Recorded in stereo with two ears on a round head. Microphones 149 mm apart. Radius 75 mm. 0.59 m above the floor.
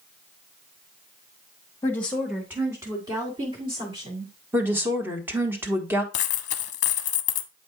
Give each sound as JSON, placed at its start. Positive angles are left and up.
{"t": 1.8, "sound": "a woman speaking", "side_deg": 20, "distance_m": 1.2}
{"t": 4.5, "sound": "a woman speaking", "side_deg": -15, "distance_m": 1.4}
{"t": 6.1, "sound": "a dropped coin", "side_deg": 45, "distance_m": 0.7}